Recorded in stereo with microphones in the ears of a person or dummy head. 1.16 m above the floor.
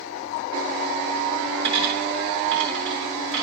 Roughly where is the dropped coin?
Right.